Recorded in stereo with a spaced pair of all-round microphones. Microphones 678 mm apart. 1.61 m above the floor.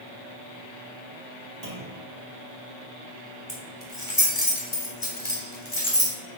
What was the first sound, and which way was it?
A clunk, 60° right (ahead or behind).